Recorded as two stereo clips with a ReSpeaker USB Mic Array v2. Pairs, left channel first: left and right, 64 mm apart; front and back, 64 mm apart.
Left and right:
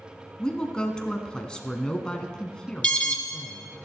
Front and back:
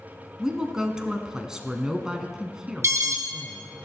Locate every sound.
0.4 s a woman speaking: 130° left, 1.0 m
2.8 s an alarm: 160° left, 1.5 m